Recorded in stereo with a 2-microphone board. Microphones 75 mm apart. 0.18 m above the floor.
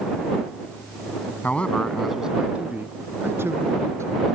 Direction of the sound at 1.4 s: 20° left (ahead or behind).